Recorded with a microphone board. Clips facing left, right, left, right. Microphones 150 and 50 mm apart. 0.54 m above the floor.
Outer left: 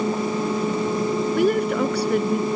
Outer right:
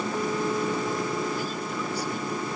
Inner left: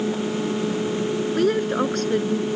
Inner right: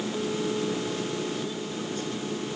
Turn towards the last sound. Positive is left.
turn(degrees=80)